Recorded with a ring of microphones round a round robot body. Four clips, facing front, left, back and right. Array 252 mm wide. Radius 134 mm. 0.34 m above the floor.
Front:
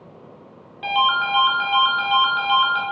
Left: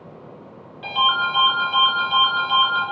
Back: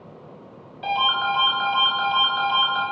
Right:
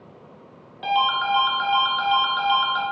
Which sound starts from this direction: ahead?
A ringtone, at 0.8 s.